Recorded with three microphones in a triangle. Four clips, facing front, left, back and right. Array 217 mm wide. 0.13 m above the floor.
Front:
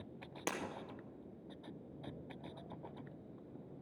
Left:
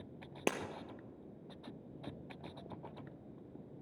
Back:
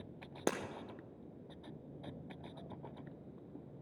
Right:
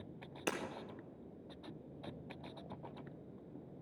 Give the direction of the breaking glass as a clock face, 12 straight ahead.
8 o'clock.